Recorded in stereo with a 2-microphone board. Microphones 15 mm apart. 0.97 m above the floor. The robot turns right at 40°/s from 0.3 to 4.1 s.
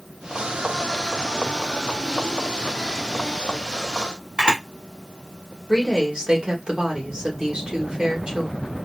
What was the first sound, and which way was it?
A camera shutter, 65° right (ahead or behind).